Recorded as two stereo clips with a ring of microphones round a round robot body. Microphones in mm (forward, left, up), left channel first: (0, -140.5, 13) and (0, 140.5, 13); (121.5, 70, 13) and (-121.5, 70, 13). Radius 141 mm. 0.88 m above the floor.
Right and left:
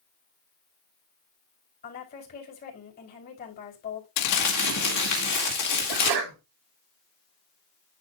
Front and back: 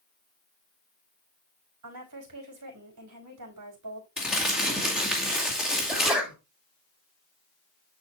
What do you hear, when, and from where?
1.8 s a woman speaking: 150° right, 4.5 m
4.2 s crumpling: 95° right, 2 m
5.9 s a sneeze: 95° left, 4 m